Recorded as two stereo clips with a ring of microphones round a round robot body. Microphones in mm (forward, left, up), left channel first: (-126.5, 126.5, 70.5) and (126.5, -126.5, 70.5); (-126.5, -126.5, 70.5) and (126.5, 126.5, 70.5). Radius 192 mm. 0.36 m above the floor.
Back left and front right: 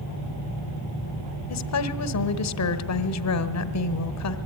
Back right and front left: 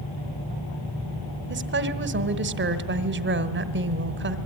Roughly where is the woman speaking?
Left.